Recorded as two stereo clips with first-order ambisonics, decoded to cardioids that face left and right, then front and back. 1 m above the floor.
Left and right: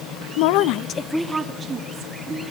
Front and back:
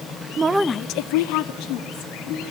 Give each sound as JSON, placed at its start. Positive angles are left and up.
{"t": 0.4, "sound": "a woman speaking", "azimuth_deg": 115, "distance_m": 0.8}